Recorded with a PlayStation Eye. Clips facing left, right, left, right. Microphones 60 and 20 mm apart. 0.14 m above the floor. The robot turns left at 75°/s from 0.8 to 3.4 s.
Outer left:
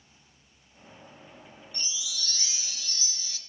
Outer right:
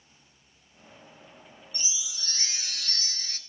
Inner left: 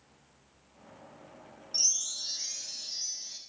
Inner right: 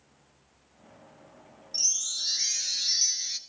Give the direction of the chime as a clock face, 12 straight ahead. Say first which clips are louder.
Outer left 2 dB, inner right 1 dB; 12 o'clock.